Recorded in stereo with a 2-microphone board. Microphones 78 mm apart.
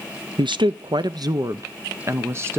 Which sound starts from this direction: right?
A woman speaking, at 0.4 s.